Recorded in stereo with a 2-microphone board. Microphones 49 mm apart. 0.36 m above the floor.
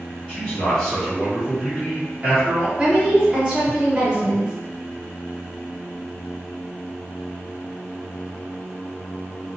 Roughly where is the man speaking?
Centre.